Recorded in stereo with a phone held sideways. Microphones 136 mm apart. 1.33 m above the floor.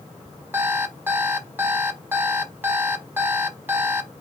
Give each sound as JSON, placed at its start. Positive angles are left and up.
{"t": 0.5, "sound": "an alarm clock", "side_deg": -15, "distance_m": 1.1}